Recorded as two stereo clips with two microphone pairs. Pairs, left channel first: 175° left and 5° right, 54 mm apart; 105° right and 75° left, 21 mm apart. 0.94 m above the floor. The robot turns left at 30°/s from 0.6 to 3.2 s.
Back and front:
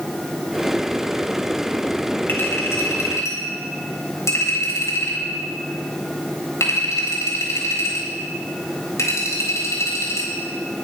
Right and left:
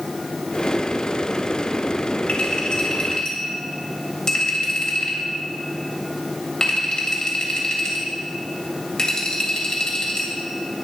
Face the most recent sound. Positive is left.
turn(degrees=-160)